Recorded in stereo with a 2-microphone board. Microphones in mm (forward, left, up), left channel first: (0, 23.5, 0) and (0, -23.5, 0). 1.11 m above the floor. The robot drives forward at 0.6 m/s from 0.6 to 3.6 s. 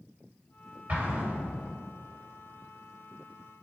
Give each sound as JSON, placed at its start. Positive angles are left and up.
{"t": 0.9, "sound": "an explosion", "side_deg": -40, "distance_m": 3.5}